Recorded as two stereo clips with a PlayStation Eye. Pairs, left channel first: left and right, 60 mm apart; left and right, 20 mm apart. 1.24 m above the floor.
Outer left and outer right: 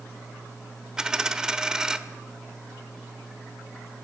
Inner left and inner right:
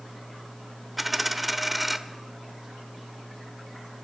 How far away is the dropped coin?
About 1.1 m.